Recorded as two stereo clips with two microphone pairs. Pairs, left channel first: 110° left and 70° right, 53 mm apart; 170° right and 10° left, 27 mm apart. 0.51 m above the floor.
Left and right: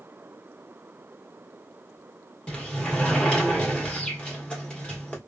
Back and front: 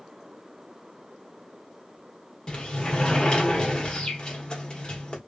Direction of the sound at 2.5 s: 165° left.